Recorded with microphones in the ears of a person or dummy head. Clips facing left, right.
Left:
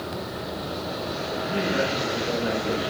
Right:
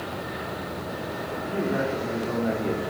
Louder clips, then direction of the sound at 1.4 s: Even; 60° right (ahead or behind).